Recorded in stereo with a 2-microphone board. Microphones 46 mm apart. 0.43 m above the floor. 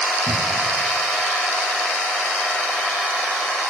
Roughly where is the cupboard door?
Right.